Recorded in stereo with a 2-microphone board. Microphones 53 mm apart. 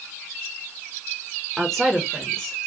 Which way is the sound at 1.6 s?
5° left (ahead or behind).